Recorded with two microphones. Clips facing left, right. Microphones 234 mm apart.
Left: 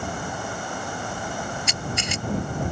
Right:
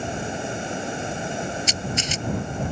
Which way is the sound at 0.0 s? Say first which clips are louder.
Right 3 dB; 25° right (ahead or behind).